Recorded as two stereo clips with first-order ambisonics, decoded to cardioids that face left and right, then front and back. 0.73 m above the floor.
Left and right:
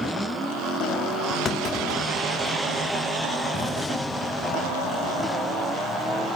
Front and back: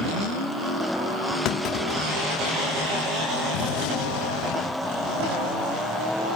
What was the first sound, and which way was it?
A clunk, 30° left.